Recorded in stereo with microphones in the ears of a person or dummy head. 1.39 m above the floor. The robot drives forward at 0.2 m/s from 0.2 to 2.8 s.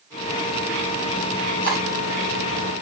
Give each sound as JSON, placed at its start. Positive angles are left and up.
{"t": 1.6, "sound": "cutlery clinking", "side_deg": 50, "distance_m": 3.0}